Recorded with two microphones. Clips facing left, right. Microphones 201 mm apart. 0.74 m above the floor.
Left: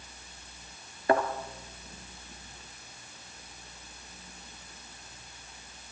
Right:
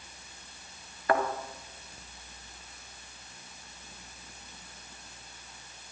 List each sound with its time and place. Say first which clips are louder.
1.1 s a thud: left 2 dB; 25° left (ahead or behind), 2 m